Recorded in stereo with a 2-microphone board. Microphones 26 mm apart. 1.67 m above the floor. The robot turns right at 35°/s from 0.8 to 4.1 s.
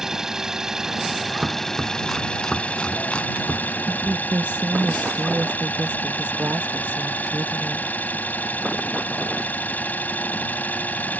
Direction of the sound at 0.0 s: 15° right.